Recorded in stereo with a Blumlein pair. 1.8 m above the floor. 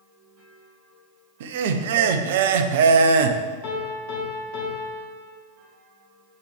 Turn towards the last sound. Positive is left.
turn(degrees=50)